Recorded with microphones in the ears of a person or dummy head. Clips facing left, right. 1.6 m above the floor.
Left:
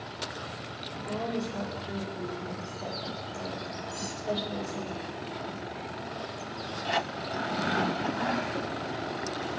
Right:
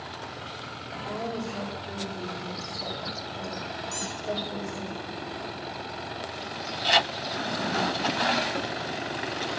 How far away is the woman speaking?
About 5.5 m.